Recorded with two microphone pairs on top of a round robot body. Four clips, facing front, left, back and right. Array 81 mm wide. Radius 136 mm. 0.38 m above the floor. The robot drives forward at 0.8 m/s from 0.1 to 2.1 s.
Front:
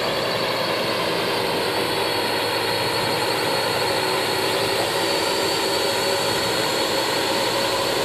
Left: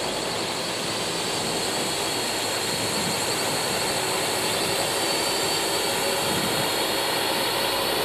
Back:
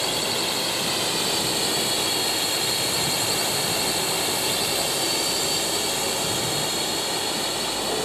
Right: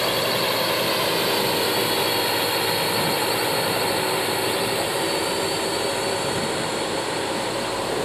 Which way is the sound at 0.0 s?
45° right.